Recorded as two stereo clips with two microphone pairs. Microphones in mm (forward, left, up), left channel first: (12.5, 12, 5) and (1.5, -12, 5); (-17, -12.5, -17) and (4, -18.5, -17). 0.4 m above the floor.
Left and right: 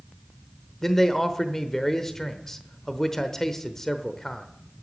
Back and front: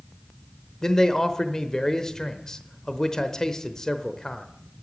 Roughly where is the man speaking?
Behind left.